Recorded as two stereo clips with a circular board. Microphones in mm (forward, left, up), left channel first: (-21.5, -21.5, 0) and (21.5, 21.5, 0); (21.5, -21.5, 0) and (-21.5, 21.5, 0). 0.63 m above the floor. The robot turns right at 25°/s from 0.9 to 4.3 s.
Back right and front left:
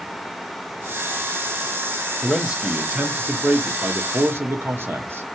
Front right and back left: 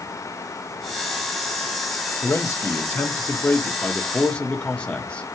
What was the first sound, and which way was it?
A man speaking, 35° right.